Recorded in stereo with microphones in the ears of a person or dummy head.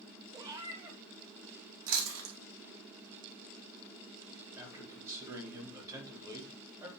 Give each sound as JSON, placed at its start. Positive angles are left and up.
{"t": 0.3, "sound": "a cat meowing", "side_deg": -20, "distance_m": 1.0}
{"t": 1.9, "sound": "chewing", "side_deg": -85, "distance_m": 2.5}
{"t": 4.6, "sound": "a man speaking", "side_deg": -15, "distance_m": 3.5}